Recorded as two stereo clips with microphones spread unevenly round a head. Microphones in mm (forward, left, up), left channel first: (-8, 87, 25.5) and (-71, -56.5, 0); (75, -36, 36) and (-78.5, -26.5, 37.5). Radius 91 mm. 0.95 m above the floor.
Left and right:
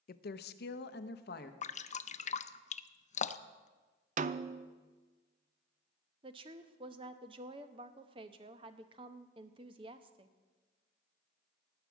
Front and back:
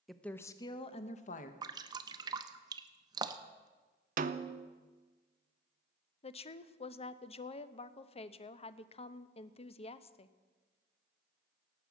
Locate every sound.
0.1 s a woman speaking: 85° left, 0.7 m; by 1.5 s 30° left, 1.0 m
1.6 s dripping: 110° left, 0.6 m
4.2 s a snare drum: 155° right, 0.6 m
6.2 s a woman speaking: 55° right, 0.7 m